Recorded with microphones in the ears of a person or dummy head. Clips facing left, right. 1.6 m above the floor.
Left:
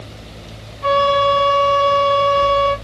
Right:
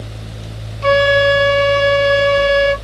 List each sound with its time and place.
0.8 s a flute: 30° right (ahead or behind), 0.6 m